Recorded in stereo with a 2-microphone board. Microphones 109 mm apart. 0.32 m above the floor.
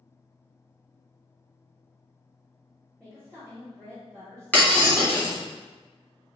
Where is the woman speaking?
5° left (ahead or behind), 1.3 m.